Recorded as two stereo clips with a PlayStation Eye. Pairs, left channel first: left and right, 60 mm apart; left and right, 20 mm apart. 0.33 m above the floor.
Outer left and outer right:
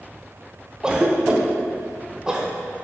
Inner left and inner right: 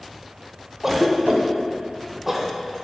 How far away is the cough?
About 0.8 m.